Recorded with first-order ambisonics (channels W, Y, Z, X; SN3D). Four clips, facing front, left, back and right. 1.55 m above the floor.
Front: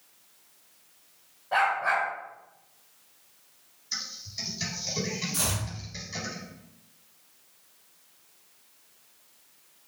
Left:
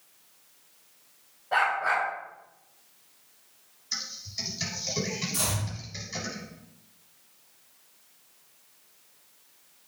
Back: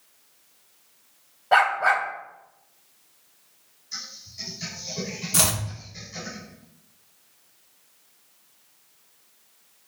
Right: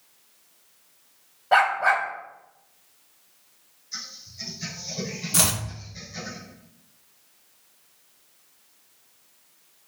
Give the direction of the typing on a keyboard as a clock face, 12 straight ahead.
10 o'clock.